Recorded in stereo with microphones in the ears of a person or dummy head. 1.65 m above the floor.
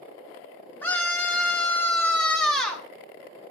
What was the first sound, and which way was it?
A scream, 10° left (ahead or behind).